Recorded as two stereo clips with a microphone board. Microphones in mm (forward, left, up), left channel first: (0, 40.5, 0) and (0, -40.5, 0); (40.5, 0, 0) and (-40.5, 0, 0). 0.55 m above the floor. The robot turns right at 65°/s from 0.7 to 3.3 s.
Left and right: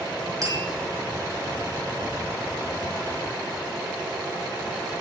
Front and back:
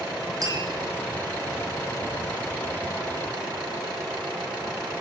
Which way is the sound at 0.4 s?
135° right.